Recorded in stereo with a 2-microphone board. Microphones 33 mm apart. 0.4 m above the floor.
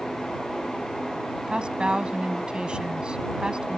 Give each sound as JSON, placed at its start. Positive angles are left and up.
{"t": 1.5, "sound": "a woman speaking", "side_deg": -30}